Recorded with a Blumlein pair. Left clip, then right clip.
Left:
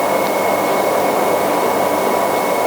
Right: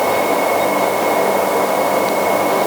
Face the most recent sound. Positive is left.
No sound to turn to.